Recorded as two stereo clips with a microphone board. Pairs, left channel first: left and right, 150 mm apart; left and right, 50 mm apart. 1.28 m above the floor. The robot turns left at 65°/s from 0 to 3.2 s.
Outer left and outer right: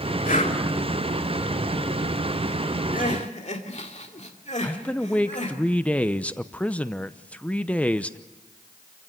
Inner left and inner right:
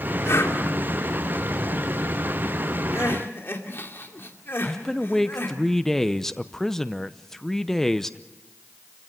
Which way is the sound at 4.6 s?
10° left (ahead or behind).